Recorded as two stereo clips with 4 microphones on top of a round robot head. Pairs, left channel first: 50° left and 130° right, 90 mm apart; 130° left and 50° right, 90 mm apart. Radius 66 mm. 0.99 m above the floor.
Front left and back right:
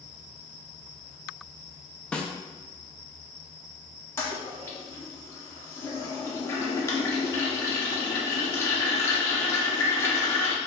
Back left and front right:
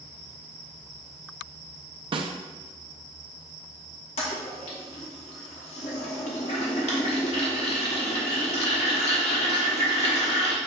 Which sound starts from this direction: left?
A toilet flushing, at 4.2 s.